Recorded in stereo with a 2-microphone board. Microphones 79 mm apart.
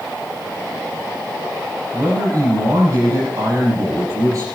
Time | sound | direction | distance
1.9 | a man speaking | 50° right (ahead or behind) | 5.5 m